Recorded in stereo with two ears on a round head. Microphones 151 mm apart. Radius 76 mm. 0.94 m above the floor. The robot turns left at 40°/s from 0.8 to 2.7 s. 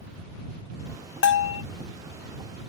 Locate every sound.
1.2 s a bell: 80° left